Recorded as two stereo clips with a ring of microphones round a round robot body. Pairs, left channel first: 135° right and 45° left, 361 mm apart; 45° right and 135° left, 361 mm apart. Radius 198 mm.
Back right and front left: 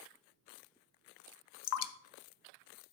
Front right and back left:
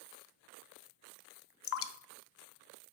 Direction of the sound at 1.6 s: 95° right.